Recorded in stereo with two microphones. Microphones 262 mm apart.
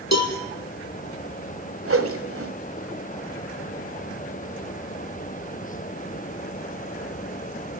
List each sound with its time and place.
0.1 s a cowbell: 80° left, 3.5 m
1.9 s a whoosh: 55° right (ahead or behind), 1.8 m